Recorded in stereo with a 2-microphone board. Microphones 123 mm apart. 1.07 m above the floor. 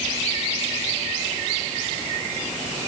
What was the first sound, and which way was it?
Only background noise.